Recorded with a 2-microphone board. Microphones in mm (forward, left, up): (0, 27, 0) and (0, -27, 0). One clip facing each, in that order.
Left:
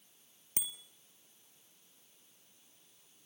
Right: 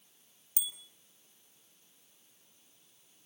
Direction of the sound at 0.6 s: 40° left (ahead or behind).